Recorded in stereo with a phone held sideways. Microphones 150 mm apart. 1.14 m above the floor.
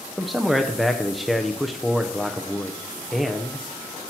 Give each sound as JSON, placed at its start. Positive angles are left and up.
{"t": 0.2, "sound": "a man speaking", "side_deg": 0, "distance_m": 0.7}